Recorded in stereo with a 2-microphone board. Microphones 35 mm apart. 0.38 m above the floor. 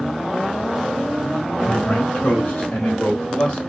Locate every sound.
1.7 s a man speaking: 40° left (ahead or behind), 2.5 m; by 3.6 s 30° left (ahead or behind), 2.0 m